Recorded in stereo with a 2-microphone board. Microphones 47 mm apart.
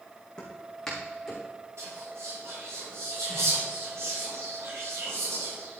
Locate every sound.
0.4 s footsteps: 15° left (ahead or behind), 3 m; by 1.4 s 5° left (ahead or behind), 4 m
1.8 s whispering: 75° right (ahead or behind), 4 m